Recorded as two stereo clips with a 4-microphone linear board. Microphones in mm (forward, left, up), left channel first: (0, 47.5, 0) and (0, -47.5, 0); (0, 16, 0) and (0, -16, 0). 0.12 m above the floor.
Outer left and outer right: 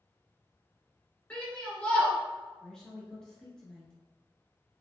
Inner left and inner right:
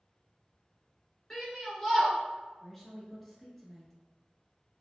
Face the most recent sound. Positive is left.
turn(degrees=10)  # may be behind; listen again after turning